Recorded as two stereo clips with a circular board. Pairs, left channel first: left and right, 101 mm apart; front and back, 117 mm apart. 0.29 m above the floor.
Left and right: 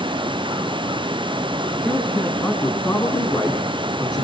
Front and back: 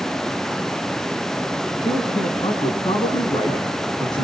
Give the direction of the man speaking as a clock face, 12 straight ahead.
11 o'clock.